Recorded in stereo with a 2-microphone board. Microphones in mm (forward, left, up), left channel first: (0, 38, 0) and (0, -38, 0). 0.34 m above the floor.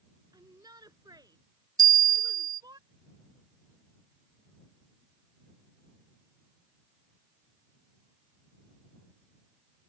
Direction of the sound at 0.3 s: 60° right (ahead or behind).